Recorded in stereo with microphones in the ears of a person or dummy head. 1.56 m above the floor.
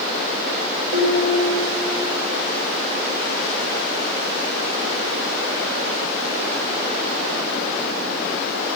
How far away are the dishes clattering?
About 3.5 m.